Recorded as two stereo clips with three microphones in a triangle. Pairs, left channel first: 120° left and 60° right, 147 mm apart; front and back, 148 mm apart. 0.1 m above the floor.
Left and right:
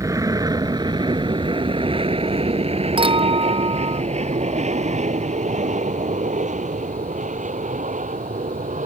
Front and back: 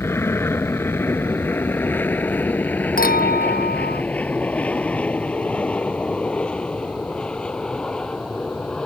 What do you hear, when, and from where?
0.0 s an aircraft: 40° right; by 8.9 s 85° right
3.0 s a clink: 5° right